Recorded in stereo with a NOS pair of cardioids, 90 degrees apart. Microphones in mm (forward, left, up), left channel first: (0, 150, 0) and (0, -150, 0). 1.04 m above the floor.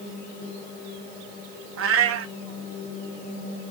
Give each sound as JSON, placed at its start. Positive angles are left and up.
{"t": 1.8, "sound": "a cat meowing", "azimuth_deg": -50, "distance_m": 0.9}